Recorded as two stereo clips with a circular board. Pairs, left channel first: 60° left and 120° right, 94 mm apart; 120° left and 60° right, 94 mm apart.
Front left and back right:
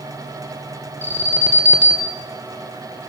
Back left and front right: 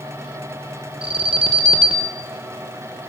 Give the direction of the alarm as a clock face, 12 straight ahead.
2 o'clock.